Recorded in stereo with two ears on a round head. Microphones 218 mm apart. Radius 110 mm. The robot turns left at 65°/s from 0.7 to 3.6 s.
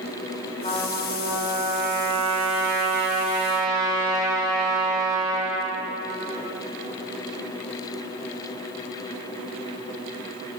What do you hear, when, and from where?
0.6 s a trumpet: 30° left, 2.5 m; by 5.7 s 155° right, 2.5 m